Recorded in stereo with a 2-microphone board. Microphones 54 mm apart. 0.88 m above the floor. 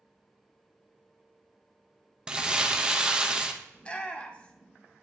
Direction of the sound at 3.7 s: 20° left (ahead or behind).